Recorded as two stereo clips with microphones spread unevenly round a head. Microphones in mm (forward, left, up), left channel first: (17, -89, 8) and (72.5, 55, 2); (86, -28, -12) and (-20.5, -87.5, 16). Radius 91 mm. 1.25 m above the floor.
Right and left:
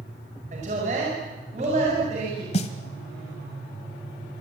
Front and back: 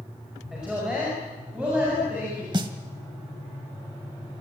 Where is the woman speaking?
125° left, 5 m.